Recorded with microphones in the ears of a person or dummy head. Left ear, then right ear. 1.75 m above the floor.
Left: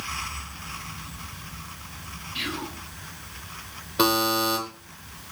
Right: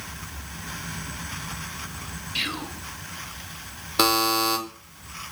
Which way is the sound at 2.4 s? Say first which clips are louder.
Right 3 dB; 30° right (ahead or behind).